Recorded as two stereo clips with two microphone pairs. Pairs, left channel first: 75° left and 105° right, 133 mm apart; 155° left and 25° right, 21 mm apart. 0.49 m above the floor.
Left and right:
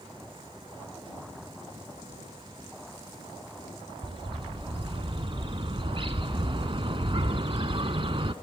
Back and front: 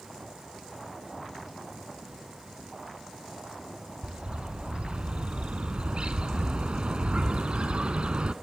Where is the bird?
60° right, 1.0 m.